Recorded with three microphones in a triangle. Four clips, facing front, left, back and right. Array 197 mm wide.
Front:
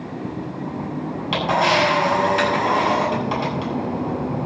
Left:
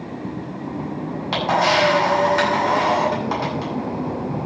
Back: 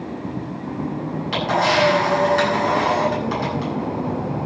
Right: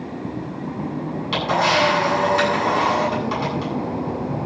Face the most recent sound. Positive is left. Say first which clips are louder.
# left 1 dB, even
turn(degrees=70)